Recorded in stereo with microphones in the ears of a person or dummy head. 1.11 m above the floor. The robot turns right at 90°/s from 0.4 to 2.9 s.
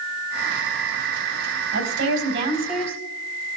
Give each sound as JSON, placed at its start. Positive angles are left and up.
{"t": 1.7, "sound": "a woman speaking", "azimuth_deg": -95, "distance_m": 4.0}